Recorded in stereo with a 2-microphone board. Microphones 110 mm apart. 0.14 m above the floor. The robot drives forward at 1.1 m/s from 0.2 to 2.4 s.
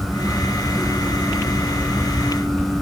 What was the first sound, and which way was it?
Only background noise.